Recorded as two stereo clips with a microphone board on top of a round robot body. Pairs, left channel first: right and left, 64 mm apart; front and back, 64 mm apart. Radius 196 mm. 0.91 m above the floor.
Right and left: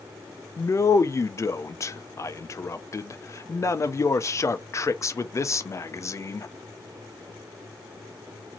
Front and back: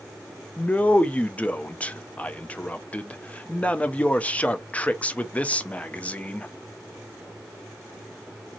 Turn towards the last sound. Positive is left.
turn(degrees=-65)